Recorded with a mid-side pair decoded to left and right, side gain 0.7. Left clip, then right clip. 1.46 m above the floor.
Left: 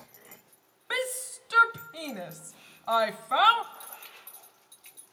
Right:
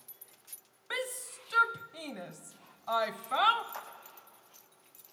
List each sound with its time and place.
0.9 s a shout: 25° left, 0.7 m
3.7 s a clap: 55° right, 7.5 m